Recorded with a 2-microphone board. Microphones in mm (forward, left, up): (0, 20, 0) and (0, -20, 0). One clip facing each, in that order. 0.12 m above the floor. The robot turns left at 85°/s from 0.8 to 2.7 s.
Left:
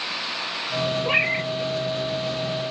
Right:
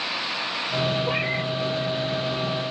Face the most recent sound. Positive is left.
turn(degrees=-60)